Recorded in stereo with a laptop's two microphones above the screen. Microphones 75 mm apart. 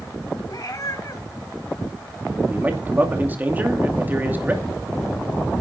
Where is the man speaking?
25° right (ahead or behind), 2.5 m.